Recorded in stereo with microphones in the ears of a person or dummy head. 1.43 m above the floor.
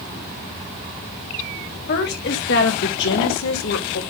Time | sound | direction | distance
1.9 | a woman speaking | 55° left (ahead or behind) | 2.5 m